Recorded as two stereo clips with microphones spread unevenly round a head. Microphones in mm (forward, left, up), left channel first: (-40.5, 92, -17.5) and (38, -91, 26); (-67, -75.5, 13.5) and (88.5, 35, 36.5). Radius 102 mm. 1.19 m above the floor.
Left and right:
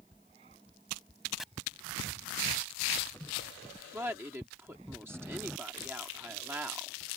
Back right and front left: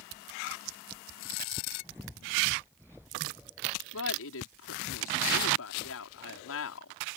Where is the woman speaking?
150° right.